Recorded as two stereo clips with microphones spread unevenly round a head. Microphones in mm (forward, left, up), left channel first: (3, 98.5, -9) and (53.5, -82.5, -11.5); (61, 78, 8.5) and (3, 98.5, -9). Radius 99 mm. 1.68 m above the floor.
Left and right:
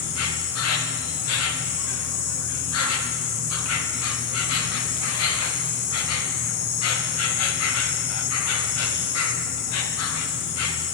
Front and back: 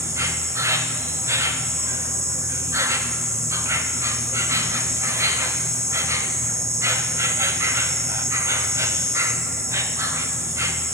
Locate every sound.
0.0 s an insect: 120° left, 0.9 m